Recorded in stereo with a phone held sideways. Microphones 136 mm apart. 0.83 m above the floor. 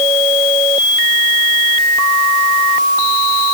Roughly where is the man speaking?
I don't hear a man speaking.